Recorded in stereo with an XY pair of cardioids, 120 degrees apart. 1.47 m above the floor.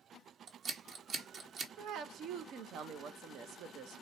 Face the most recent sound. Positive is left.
turn(degrees=-70)